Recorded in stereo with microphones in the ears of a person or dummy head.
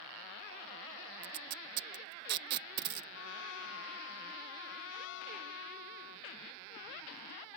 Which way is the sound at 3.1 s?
80° left.